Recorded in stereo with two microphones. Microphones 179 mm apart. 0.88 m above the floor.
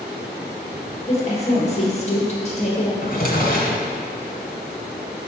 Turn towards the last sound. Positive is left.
turn(degrees=55)  # may be behind; listen again after turning